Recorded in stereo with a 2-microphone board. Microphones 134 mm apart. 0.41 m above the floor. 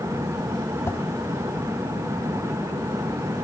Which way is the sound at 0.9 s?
20° left (ahead or behind).